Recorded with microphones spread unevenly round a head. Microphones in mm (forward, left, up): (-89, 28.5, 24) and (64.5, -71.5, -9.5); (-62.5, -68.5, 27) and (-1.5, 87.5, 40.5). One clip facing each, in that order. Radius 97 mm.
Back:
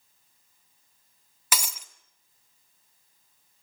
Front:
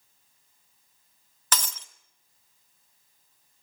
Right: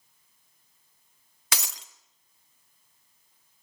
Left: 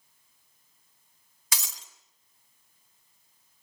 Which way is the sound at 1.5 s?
140° right.